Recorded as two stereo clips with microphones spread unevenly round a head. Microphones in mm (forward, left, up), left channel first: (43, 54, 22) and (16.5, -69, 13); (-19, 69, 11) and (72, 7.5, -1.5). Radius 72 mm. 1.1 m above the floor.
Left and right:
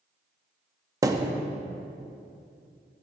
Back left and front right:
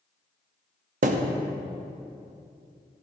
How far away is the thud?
About 0.7 m.